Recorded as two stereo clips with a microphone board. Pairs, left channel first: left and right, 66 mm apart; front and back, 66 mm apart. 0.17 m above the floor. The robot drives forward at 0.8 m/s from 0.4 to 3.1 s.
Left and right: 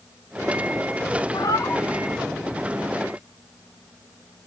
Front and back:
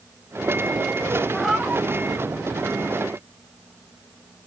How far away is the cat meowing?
About 0.5 m.